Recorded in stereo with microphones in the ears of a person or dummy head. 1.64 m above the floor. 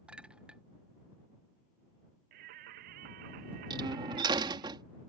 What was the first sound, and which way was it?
A clink, 10° right (ahead or behind).